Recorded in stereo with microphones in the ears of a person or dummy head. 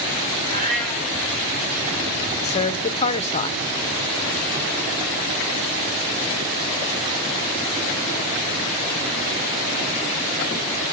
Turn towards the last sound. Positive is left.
turn(degrees=30)  # may be behind; listen again after turning